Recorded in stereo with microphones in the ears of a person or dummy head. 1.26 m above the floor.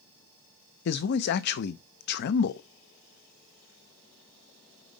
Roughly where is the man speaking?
Left.